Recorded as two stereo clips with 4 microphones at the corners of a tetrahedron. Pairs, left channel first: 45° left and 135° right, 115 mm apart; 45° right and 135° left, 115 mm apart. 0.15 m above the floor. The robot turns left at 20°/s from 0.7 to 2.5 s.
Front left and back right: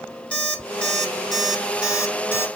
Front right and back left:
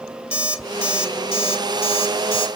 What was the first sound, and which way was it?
An alarm clock, 35° right.